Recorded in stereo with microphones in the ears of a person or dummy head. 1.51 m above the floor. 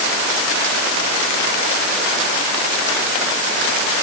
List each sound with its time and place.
Only background noise.